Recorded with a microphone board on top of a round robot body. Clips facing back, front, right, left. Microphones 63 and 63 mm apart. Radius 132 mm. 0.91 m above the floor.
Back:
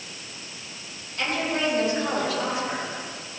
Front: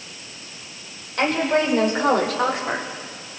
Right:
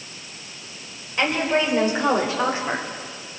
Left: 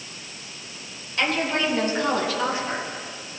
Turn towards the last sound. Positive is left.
turn(degrees=-40)